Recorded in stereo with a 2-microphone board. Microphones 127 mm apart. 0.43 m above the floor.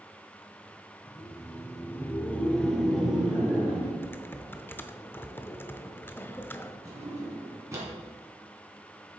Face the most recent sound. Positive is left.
turn(degrees=-25)  # may be behind; listen again after turning